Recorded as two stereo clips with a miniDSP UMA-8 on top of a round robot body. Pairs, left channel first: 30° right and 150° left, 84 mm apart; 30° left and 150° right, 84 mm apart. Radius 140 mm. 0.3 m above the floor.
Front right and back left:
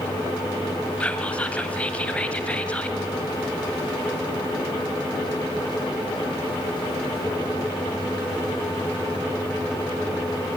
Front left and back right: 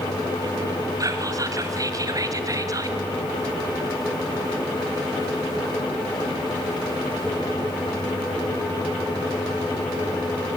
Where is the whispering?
105° right, 2 m.